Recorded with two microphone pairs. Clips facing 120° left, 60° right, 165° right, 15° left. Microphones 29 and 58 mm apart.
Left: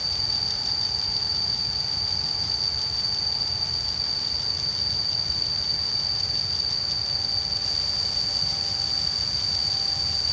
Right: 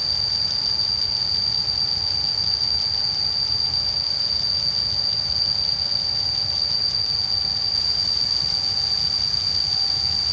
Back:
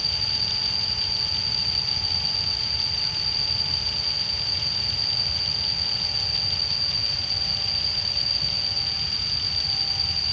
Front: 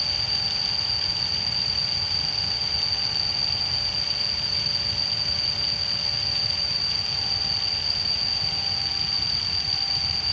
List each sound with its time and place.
0.0 s an insect: 85° right, 3.5 m